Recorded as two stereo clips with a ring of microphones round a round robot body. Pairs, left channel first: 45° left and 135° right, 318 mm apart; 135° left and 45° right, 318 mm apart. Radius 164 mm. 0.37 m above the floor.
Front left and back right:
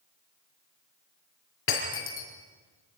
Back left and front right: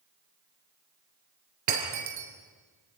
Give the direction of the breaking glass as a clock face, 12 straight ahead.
12 o'clock.